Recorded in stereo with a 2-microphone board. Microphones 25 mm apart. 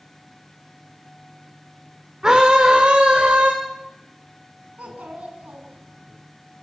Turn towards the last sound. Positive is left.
turn(degrees=-70)  # may be behind; listen again after turning